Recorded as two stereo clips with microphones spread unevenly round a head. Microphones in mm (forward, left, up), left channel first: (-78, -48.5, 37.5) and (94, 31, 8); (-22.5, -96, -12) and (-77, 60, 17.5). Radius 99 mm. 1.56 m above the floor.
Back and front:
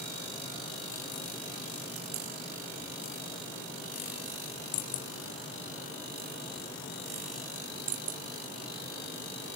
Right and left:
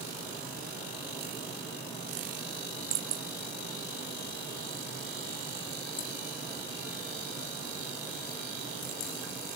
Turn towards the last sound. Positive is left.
No sound to turn to.